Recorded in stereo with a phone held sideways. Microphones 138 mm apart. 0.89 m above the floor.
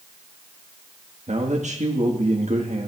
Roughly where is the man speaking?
Right.